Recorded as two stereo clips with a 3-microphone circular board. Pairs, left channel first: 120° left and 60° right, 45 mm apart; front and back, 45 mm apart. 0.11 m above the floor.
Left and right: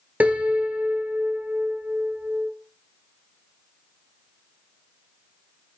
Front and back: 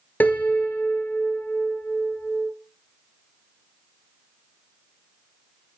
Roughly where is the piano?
Ahead right.